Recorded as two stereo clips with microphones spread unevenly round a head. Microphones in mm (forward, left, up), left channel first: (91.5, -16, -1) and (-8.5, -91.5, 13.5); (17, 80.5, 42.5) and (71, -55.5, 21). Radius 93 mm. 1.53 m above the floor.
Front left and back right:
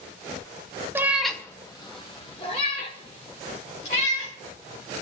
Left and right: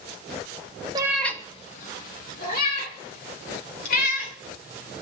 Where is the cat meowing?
120° right, 0.8 m; by 5.0 s 95° left, 5 m.